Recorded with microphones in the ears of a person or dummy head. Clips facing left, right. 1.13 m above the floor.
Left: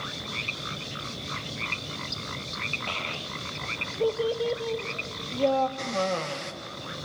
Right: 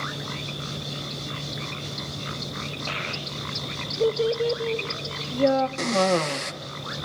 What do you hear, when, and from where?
2.9 s a child speaking: 20° right (ahead or behind), 0.8 m
5.8 s a cough: 65° right (ahead or behind), 0.8 m